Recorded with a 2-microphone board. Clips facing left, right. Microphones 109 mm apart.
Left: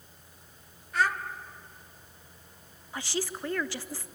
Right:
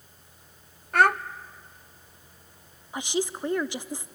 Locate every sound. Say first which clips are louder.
0.9 s a child speaking: right 7 dB; 60° right (ahead or behind), 0.6 m
2.9 s a woman speaking: right 5 dB; 20° right (ahead or behind), 0.7 m